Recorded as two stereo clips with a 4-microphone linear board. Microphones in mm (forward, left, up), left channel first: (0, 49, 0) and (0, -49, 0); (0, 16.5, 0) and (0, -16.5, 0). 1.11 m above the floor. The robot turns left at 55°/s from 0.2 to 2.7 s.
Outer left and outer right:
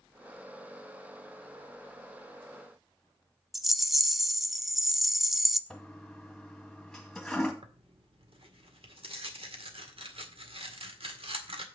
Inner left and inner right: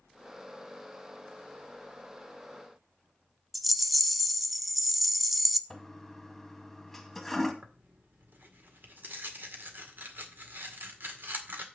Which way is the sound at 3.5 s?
5° right (ahead or behind).